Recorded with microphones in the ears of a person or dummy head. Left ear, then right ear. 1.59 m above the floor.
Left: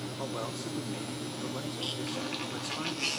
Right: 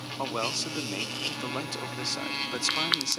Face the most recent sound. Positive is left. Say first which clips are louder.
# right 8 dB
turn(degrees=-60)  # may be behind; listen again after turning